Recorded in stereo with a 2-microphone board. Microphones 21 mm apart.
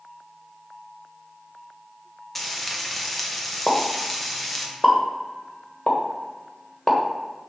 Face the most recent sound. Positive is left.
turn(degrees=35)  # may be behind; listen again after turning